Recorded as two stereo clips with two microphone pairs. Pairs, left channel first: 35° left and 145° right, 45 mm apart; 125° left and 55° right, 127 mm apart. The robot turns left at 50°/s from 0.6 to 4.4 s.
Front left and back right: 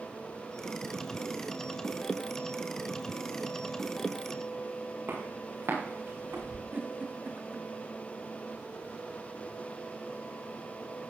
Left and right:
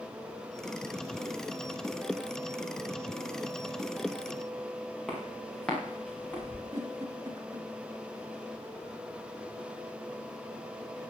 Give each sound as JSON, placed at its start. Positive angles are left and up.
{"t": 5.1, "sound": "footsteps", "azimuth_deg": -145, "distance_m": 7.0}
{"t": 6.7, "sound": "a giggle", "azimuth_deg": -120, "distance_m": 2.0}